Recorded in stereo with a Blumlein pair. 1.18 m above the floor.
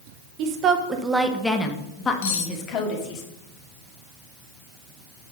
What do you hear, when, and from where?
0.4 s a woman speaking: 40° right, 0.7 m; by 3.2 s 35° left, 1.6 m
2.2 s cutlery clinking: 55° left, 1.0 m